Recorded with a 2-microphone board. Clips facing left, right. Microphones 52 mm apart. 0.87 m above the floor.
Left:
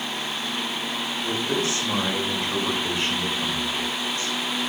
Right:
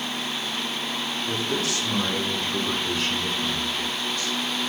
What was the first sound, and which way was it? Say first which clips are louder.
A man speaking: left 2 dB; 30° left (ahead or behind).